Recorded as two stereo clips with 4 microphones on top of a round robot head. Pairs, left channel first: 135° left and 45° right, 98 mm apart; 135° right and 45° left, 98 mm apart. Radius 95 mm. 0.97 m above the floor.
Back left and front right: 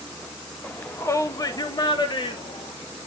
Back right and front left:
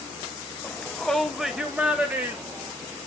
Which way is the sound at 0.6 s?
170° right.